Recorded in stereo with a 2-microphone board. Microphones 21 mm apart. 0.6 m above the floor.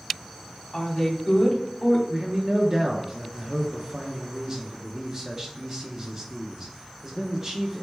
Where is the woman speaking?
25° left (ahead or behind), 1.0 m.